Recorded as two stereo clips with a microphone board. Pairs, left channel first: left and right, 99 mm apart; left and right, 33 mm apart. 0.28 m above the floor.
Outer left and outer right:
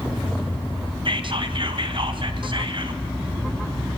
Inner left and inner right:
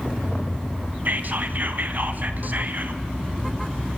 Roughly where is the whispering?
Right.